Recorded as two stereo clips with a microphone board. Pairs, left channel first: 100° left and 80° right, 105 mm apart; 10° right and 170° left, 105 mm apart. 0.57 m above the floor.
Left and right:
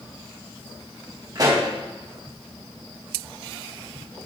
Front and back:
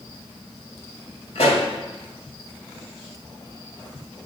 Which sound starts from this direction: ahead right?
A pop, at 1.4 s.